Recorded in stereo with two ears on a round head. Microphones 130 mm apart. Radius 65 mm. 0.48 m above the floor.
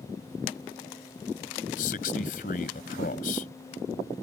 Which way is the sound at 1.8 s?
65° left (ahead or behind).